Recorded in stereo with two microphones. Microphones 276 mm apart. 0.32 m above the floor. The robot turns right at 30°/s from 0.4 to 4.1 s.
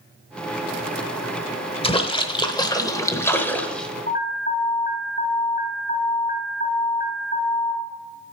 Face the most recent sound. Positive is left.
turn(degrees=35)  # may be behind; listen again after turning